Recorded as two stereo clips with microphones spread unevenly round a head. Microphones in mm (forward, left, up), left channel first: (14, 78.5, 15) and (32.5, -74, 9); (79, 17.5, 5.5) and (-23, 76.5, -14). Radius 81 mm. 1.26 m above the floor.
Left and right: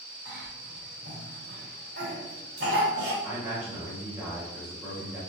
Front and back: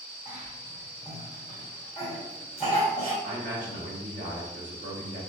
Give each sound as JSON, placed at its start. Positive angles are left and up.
{"t": 0.2, "sound": "a cough", "azimuth_deg": -120, "distance_m": 1.9}
{"t": 3.2, "sound": "a man speaking", "azimuth_deg": -165, "distance_m": 1.7}